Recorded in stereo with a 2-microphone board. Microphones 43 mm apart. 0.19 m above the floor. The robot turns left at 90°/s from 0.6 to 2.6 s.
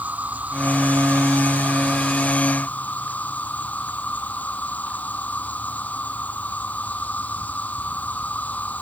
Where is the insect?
40° right; by 8.8 s 140° left.